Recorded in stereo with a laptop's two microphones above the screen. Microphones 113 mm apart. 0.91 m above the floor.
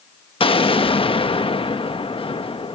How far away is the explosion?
About 1.0 m.